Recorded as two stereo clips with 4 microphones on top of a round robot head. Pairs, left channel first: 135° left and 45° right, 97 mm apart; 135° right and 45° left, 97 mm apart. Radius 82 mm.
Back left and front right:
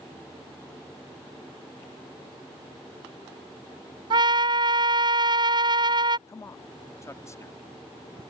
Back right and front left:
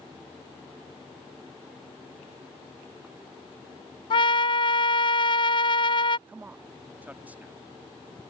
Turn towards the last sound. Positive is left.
turn(degrees=105)